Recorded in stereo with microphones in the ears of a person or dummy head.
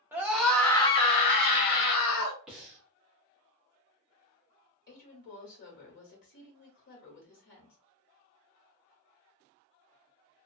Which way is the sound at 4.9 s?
60° left (ahead or behind).